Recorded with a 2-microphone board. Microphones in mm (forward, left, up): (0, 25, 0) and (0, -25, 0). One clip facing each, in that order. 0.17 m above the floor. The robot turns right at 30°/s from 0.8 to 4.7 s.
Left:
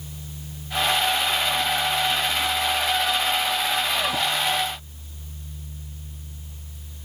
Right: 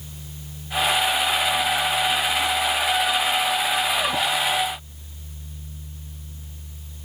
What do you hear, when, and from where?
Only background noise.